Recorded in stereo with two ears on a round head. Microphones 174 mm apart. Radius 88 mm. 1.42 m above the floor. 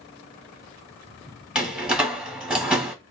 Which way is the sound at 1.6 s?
5° right (ahead or behind).